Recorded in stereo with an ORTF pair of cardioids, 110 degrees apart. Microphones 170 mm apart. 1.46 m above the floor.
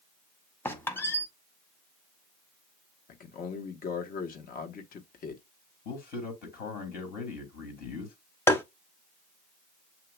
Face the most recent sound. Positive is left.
turn(degrees=15)